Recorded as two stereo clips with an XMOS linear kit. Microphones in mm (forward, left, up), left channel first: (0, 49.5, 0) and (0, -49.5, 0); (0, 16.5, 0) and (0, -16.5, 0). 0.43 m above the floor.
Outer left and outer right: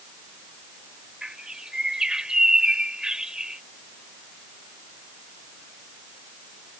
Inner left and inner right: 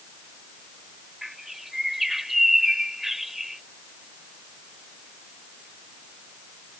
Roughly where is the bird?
Centre.